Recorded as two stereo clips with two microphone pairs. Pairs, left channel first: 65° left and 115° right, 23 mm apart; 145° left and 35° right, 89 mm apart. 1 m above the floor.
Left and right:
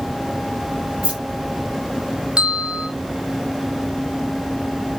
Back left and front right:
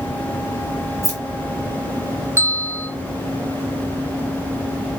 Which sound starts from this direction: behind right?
Keys jangling, at 1.0 s.